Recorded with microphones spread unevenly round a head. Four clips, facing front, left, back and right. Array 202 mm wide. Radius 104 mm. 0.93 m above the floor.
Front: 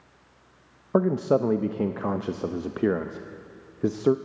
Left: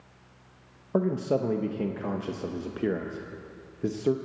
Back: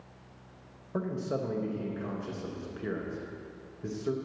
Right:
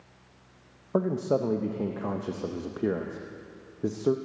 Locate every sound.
0.9 s a man speaking: straight ahead, 0.6 m